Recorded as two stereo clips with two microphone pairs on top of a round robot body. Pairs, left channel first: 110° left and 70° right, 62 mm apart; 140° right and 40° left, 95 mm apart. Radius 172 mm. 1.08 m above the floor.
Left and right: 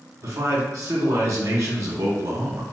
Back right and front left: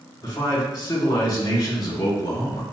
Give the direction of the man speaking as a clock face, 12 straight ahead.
3 o'clock.